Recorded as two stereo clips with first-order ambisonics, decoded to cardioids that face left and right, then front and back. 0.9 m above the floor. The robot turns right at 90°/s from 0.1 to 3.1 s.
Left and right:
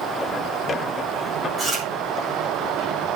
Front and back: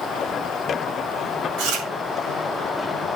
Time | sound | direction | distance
1.6 | chewing | 170° right | 3.5 m